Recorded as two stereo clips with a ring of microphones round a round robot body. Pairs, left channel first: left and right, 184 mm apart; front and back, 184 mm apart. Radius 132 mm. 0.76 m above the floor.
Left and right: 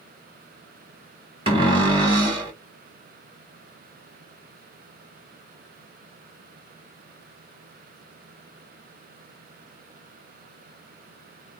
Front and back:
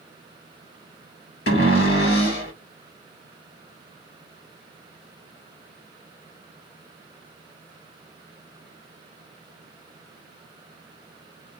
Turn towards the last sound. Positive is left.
turn(degrees=-30)